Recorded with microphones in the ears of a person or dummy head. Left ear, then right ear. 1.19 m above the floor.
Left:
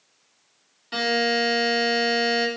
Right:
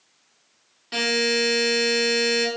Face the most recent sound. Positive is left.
turn(degrees=-5)  # may be behind; listen again after turning